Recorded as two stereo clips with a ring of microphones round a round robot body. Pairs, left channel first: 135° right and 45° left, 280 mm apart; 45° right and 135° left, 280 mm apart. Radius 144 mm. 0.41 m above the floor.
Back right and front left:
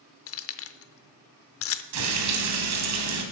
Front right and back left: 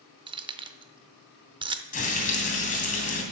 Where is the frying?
20° left, 2.5 m.